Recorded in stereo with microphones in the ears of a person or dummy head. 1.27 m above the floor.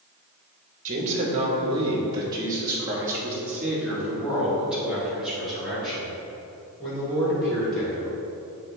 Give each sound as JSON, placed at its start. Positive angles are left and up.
{"t": 0.8, "sound": "a man speaking", "side_deg": -45, "distance_m": 1.8}